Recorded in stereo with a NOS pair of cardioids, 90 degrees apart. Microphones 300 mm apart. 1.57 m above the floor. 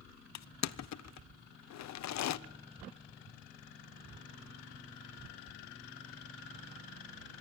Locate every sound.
0.3 s crushing: 65° left, 0.8 m